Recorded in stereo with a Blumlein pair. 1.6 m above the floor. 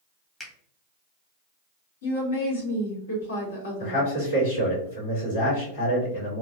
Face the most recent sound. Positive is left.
turn(degrees=70)